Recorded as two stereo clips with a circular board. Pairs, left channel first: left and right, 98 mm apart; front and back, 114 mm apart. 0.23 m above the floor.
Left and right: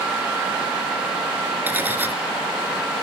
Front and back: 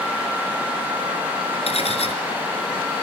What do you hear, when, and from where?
1.7 s cutlery clinking: 20° right, 1.9 m